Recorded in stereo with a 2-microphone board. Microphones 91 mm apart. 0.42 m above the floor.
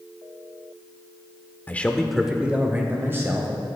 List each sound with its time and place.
1.7 s a man speaking: 20° left (ahead or behind), 0.9 m; by 3.5 s 30° right (ahead or behind), 1.9 m